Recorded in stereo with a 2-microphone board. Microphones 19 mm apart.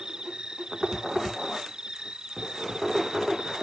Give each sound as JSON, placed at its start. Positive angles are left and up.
{"t": 0.0, "sound": "an insect", "side_deg": -50}